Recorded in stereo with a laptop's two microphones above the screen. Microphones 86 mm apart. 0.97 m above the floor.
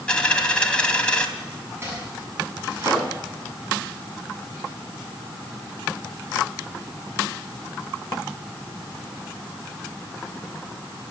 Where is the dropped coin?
15° left (ahead or behind), 2.5 m.